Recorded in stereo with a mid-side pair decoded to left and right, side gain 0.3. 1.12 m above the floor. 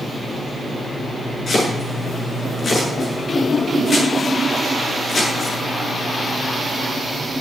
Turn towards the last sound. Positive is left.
turn(degrees=55)